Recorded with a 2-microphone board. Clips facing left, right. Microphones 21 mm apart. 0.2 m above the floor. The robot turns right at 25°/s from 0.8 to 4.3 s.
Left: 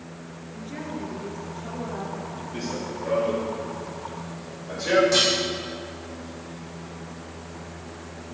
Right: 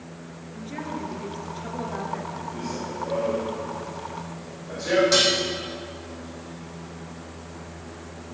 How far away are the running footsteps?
About 3.5 m.